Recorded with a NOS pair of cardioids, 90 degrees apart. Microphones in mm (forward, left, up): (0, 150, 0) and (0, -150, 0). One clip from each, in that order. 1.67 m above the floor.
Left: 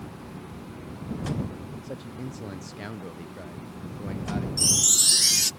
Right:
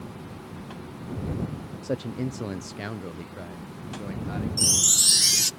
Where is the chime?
5° right.